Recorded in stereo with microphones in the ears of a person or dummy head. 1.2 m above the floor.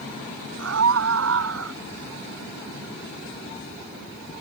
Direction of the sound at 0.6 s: 80° right.